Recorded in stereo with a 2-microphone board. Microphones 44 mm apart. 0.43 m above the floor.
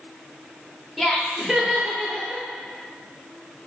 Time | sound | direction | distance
1.0 | laughter | centre (ahead or behind) | 1.0 m